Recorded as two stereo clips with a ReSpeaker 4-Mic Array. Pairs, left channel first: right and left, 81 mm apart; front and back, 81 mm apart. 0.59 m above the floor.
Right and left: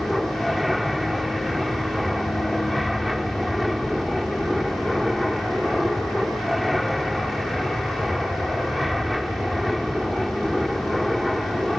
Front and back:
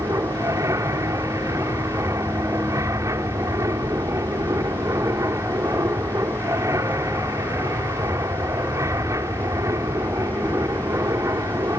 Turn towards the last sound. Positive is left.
turn(degrees=180)